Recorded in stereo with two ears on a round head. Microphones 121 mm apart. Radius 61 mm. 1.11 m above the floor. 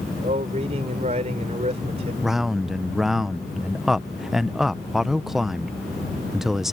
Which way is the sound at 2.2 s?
5° right (ahead or behind).